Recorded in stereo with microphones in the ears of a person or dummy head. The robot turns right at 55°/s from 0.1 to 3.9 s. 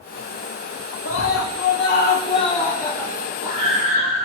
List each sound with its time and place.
1.1 s a scream: 75° left, 3 m; by 4.3 s 130° right, 3 m